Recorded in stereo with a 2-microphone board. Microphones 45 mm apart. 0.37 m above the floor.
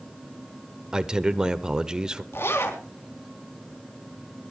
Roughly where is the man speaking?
Centre.